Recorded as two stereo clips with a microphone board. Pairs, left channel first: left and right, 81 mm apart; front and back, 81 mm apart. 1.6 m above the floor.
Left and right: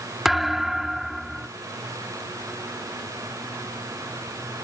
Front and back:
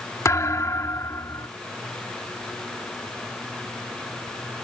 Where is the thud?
5° right.